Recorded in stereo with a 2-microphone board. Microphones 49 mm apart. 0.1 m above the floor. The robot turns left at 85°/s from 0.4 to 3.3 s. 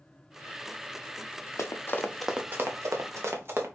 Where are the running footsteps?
80° left, 0.7 m; by 3.7 s 45° right (ahead or behind), 1.2 m.